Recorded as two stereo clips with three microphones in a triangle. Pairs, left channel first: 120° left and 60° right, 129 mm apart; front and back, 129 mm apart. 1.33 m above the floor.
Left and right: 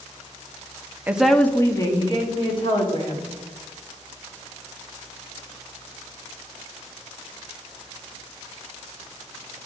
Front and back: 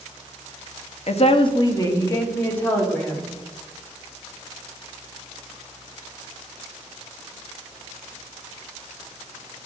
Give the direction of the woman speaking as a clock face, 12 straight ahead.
12 o'clock.